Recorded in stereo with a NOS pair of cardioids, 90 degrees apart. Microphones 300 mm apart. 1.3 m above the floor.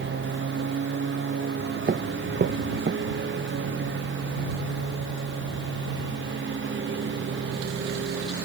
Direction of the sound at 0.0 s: 40° right.